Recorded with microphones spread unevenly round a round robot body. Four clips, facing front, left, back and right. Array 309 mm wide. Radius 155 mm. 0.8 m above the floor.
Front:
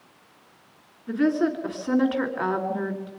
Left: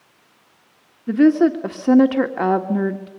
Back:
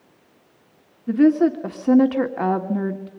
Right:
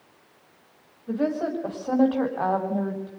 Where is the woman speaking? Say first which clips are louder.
Left 11 dB, back 7 dB; 125° left, 2 m.